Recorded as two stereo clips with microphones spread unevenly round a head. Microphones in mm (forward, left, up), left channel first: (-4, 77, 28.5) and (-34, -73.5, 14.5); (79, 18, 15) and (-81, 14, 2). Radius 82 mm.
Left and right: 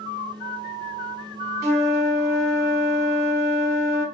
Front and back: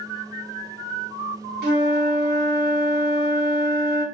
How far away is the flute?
About 1.0 m.